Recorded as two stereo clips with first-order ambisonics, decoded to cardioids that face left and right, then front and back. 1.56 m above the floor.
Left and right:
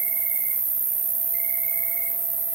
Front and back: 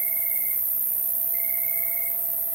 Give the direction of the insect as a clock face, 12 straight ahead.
4 o'clock.